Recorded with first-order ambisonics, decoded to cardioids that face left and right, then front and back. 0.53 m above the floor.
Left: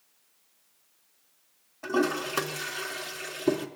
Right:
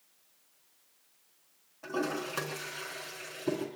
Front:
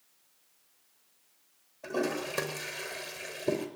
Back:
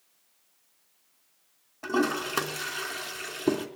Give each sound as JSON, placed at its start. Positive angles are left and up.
{"t": 1.8, "sound": "a toilet flushing", "azimuth_deg": 160, "distance_m": 3.5}